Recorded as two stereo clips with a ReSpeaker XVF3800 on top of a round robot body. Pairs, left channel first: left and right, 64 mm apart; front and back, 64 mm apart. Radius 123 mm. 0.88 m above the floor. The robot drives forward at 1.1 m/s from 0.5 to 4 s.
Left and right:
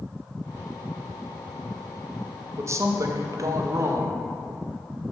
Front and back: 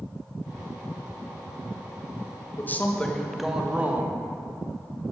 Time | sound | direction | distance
2.6 | a woman speaking | 55° right | 1.7 m